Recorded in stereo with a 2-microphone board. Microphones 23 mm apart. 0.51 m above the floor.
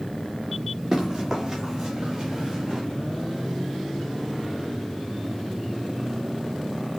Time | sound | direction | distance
0.9 | running footsteps | 15° right (ahead or behind) | 6 m